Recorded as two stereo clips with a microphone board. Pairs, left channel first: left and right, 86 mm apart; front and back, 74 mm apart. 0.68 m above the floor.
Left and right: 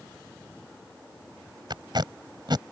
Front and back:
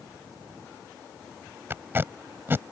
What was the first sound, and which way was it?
Tape being pulled, 120° right.